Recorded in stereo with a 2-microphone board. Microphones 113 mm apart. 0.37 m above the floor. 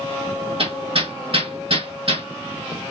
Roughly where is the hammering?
Right.